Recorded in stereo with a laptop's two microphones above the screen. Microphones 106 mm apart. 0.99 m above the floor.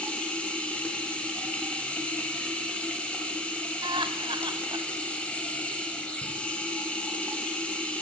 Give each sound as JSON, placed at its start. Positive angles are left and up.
{"t": 0.0, "sound": "running water", "side_deg": 10, "distance_m": 0.9}
{"t": 3.8, "sound": "laughter", "side_deg": -50, "distance_m": 0.6}